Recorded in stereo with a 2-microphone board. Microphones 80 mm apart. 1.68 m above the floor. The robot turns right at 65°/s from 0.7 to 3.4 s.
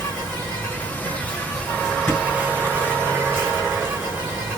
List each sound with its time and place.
0.0 s an insect: 25° left (ahead or behind), 1.6 m; by 4.6 s 25° right (ahead or behind), 1.6 m
2.1 s a thud: 20° left (ahead or behind), 1.6 m; by 2.2 s 15° left (ahead or behind), 1.6 m